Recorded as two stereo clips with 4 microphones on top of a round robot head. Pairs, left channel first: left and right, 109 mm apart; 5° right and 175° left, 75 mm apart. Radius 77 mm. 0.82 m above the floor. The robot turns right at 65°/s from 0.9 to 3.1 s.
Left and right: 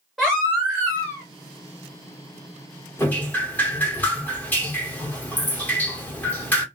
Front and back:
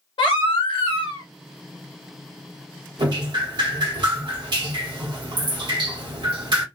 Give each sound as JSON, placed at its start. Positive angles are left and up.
{"t": 0.2, "sound": "a baby crying", "azimuth_deg": 0, "distance_m": 1.3}
{"t": 3.0, "sound": "dripping", "azimuth_deg": 155, "distance_m": 1.6}